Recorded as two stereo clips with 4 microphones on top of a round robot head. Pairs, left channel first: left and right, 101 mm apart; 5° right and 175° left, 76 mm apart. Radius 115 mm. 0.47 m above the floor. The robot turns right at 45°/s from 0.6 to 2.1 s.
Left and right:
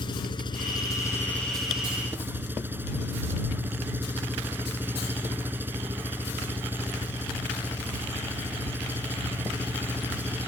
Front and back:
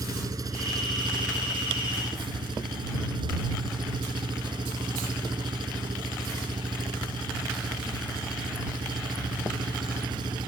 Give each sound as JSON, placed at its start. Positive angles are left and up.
{"t": 0.0, "sound": "an engine running", "azimuth_deg": 130}